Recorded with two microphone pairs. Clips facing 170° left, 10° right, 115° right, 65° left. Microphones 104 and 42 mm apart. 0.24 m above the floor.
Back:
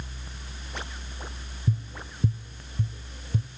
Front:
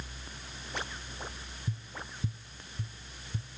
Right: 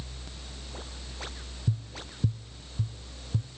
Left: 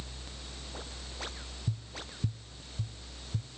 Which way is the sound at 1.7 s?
150° right.